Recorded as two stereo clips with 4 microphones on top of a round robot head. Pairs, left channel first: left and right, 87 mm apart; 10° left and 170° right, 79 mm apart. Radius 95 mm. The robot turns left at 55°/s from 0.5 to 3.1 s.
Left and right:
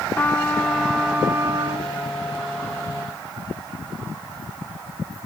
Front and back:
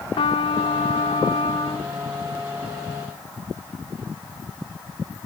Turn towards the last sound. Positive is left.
turn(degrees=-125)